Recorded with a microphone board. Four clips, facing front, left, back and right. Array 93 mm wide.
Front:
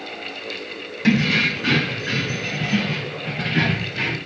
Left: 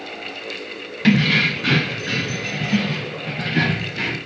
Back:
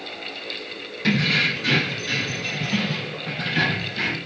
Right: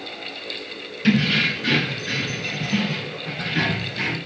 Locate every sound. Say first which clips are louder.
1.0 s keys jangling: left 3 dB, front 3 dB; 80° left, 1.6 m; by 4.2 s 35° left, 5.5 m